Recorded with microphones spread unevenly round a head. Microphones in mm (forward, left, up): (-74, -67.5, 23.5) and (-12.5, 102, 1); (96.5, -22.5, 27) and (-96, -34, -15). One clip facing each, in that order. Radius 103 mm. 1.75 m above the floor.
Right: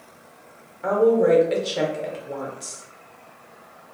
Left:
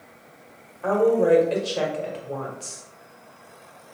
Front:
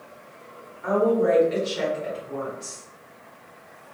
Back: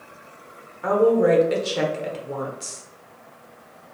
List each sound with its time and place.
0.8 s a woman speaking: straight behind, 0.9 m